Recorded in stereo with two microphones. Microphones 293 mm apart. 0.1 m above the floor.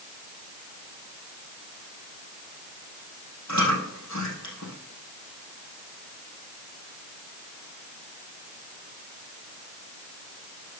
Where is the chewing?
65° left (ahead or behind), 4 m.